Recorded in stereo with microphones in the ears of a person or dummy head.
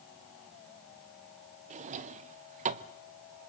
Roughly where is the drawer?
Right.